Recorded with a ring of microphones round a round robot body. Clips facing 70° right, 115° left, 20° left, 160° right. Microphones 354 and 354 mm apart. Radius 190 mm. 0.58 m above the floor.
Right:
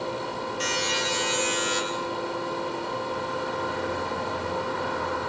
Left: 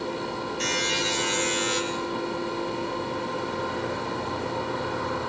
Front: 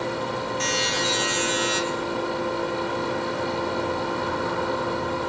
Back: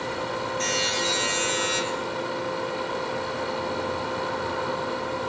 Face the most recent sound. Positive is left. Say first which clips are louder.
# even, front 1 dB
turn(degrees=50)